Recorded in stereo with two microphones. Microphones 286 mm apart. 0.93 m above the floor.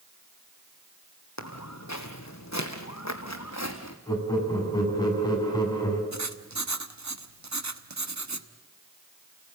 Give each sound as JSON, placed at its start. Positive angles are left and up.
{"t": 1.4, "sound": "footsteps", "side_deg": 65, "distance_m": 2.5}
{"t": 4.1, "sound": "laughter", "side_deg": 15, "distance_m": 7.0}
{"t": 6.1, "sound": "writing", "side_deg": -70, "distance_m": 1.2}